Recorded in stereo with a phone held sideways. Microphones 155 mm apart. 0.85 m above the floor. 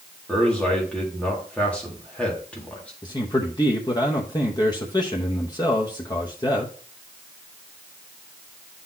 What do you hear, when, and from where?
0.3 s a man speaking: 5° left (ahead or behind), 2.0 m
3.0 s a man speaking: 25° left (ahead or behind), 0.8 m